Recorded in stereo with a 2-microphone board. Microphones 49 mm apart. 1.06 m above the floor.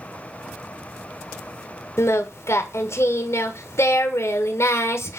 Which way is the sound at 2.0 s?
60° left (ahead or behind).